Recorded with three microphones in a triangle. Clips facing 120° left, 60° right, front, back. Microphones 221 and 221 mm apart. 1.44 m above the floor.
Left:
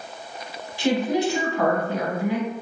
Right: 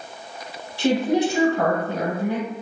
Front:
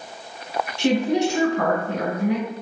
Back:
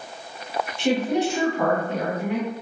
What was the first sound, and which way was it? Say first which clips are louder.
A woman speaking: right 2 dB, front 2 dB; 5° right.